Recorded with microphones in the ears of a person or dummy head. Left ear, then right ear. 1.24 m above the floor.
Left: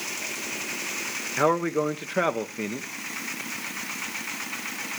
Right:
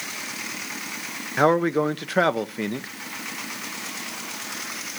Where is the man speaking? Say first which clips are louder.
Right 4 dB; 20° right (ahead or behind), 0.6 m.